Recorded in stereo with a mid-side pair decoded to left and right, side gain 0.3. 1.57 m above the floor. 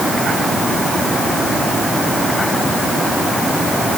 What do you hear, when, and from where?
Only background noise.